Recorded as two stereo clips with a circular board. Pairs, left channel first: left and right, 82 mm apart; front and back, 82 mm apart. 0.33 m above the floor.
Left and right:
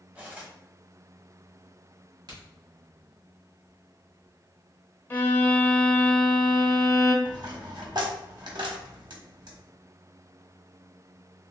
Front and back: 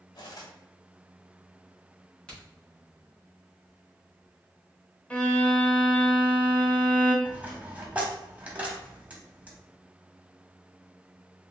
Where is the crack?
75° right, 1.8 m.